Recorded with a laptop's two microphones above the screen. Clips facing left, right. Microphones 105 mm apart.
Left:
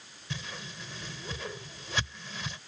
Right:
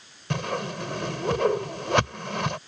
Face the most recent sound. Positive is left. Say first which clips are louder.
# right 14 dB
turn(degrees=-70)  # may be behind; listen again after turning